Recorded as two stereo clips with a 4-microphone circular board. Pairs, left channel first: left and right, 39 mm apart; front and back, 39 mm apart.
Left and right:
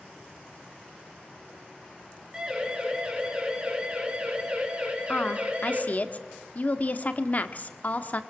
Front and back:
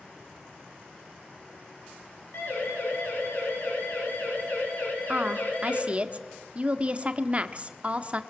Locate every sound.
2.3 s a siren: 20° right, 8 m; by 5.8 s 40° right, 5 m
5.1 s a woman speaking: 130° left, 1.3 m